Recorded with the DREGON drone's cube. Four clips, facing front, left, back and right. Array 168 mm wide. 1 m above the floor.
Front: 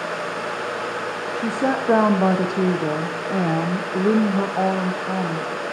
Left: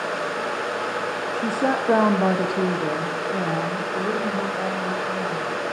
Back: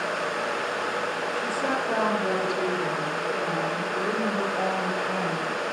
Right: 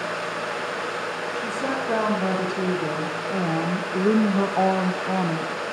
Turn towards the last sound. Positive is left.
turn(degrees=-75)